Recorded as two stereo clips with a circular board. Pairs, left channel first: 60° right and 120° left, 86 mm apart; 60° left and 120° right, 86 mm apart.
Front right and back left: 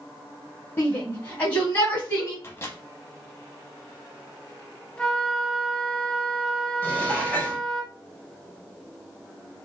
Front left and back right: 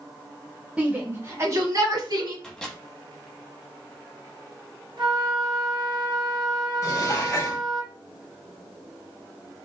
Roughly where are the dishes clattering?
Ahead.